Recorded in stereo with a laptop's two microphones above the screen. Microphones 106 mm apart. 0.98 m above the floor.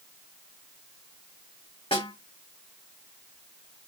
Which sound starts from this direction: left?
A snare drum, at 1.9 s.